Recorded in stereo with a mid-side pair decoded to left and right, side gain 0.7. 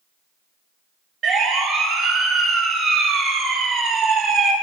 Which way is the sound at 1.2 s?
40° right.